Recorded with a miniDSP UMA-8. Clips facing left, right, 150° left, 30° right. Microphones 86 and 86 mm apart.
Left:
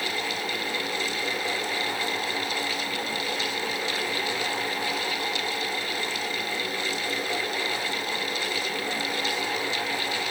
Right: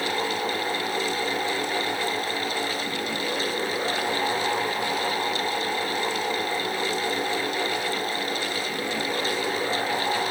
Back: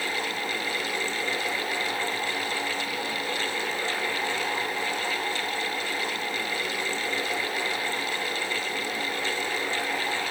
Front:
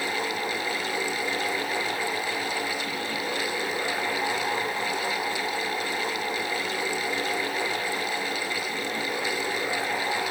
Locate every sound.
Only background noise.